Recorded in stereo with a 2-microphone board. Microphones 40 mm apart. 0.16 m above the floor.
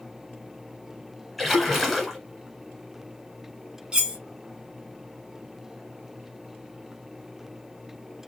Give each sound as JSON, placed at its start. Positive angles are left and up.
{"t": 1.4, "sound": "a splash", "side_deg": 0, "distance_m": 1.0}
{"t": 3.9, "sound": "cutlery clinking", "side_deg": -15, "distance_m": 0.8}